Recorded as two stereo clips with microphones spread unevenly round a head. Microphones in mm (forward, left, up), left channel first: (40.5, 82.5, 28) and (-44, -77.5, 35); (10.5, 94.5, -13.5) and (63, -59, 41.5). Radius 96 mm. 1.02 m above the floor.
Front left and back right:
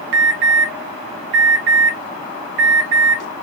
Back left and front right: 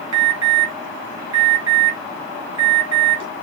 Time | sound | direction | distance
0.1 | an alarm | 70° right | 3 m